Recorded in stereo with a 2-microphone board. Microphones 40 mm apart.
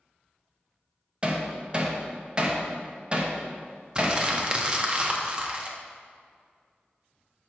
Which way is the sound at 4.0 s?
25° right (ahead or behind).